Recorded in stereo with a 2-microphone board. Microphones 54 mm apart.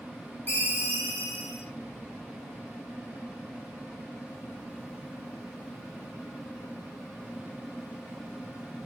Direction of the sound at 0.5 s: 35° left (ahead or behind).